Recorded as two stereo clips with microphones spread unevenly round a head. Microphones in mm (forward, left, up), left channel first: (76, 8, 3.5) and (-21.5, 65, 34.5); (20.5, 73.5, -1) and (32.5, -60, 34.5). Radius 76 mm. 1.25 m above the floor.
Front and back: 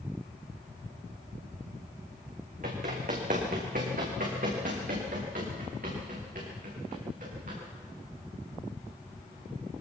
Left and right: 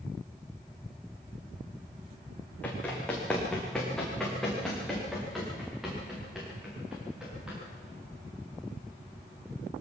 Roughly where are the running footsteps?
Behind.